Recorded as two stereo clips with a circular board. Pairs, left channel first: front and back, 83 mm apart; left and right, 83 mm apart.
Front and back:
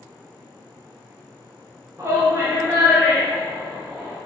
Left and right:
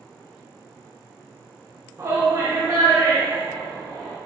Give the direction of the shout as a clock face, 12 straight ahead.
4 o'clock.